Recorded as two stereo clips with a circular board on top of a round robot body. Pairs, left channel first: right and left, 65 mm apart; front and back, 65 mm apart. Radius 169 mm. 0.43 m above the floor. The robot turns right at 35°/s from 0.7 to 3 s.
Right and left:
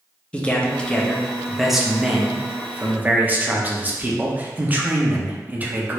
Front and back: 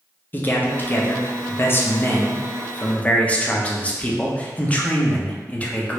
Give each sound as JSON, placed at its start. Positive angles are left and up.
{"t": 0.3, "sound": "a man speaking", "azimuth_deg": -30, "distance_m": 0.8}